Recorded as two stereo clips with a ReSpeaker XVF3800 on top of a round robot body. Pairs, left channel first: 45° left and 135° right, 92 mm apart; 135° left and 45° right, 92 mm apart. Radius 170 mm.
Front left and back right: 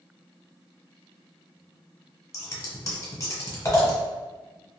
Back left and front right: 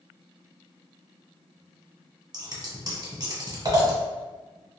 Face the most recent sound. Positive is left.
turn(degrees=-10)